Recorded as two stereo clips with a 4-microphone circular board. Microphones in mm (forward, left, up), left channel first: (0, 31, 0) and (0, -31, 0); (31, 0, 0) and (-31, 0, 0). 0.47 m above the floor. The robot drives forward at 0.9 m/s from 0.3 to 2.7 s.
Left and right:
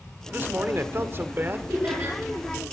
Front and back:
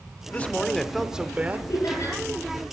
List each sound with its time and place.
0.3 s a man speaking: 50° right, 1.2 m; by 1.6 s 130° right, 1.2 m
1.7 s laughter: 40° right, 9 m; by 2.2 s 45° right, 9 m